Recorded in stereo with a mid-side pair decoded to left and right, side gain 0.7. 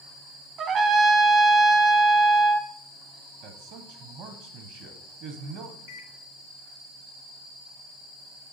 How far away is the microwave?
About 1.1 m.